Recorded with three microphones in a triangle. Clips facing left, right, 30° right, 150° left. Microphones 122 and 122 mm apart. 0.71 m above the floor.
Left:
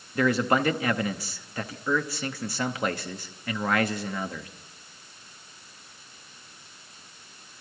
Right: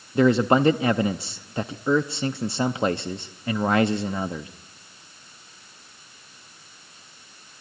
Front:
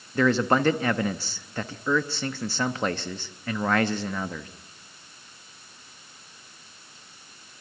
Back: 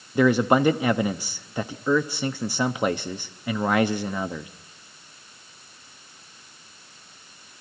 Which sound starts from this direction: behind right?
A man speaking, at 0.1 s.